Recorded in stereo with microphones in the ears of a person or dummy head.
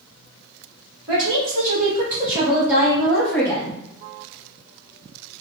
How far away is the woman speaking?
About 1.5 m.